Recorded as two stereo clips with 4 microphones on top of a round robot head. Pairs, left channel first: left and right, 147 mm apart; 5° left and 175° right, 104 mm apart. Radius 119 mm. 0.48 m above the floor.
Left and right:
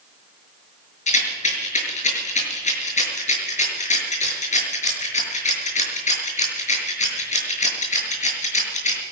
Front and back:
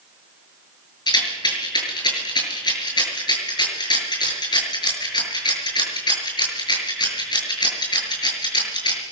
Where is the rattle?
50° left, 6 m.